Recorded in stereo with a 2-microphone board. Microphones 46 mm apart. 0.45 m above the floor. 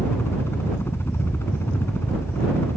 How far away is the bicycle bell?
I don't hear a bicycle bell.